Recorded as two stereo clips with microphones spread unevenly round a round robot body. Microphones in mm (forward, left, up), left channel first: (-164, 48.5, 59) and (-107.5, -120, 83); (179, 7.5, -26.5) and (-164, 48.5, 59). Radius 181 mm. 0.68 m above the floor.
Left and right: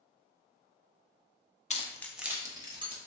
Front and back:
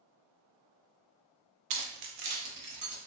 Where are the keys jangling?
160° left, 0.6 m; by 3.0 s 135° right, 1.4 m.